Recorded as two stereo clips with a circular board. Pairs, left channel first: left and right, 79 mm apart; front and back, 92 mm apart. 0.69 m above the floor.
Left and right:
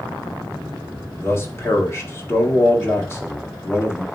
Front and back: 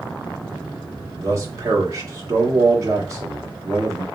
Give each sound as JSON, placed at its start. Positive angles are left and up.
{"t": 1.2, "sound": "a man speaking", "azimuth_deg": 135, "distance_m": 1.5}